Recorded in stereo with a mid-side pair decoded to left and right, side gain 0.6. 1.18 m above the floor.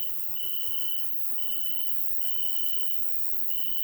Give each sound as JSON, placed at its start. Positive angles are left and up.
{"t": 0.0, "sound": "an insect", "azimuth_deg": 0, "distance_m": 2.5}